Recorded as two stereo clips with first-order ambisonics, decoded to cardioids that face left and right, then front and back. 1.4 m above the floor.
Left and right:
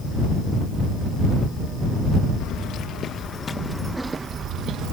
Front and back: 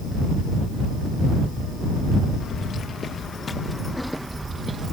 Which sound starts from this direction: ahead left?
Keys jangling, at 2.4 s.